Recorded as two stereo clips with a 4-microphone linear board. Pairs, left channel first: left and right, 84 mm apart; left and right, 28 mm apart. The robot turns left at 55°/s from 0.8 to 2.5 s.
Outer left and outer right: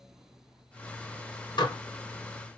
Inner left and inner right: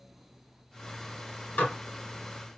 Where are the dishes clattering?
65° left (ahead or behind), 1.6 m; by 1.8 s 70° left (ahead or behind), 1.6 m.